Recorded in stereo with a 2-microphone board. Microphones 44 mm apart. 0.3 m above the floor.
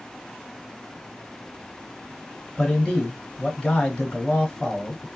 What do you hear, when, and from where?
2.6 s a man speaking: 15° left (ahead or behind), 1.4 m